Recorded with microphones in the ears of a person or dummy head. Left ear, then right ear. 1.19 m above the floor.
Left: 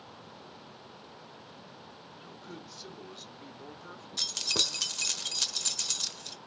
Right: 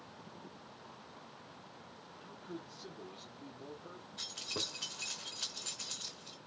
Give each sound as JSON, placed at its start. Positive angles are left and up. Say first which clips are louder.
{"t": 2.2, "sound": "a man speaking", "louder": "even", "side_deg": 25, "distance_m": 1.3}
{"t": 4.2, "sound": "keys jangling", "louder": "left 11 dB", "side_deg": 90, "distance_m": 0.8}